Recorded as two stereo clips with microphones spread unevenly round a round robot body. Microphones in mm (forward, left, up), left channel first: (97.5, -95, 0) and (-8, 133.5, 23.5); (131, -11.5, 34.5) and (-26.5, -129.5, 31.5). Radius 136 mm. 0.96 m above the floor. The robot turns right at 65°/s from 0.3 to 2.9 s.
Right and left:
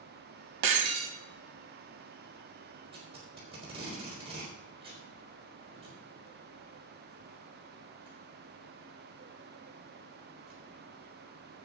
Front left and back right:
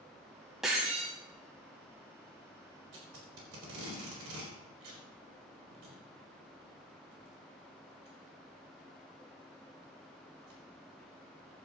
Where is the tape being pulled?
175° right, 4.5 m.